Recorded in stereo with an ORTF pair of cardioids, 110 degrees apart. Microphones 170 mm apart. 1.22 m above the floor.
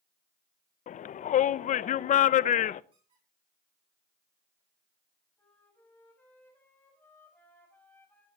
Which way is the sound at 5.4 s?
10° left.